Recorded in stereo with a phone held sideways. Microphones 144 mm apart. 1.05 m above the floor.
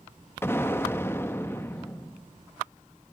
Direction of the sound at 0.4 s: 15° left (ahead or behind).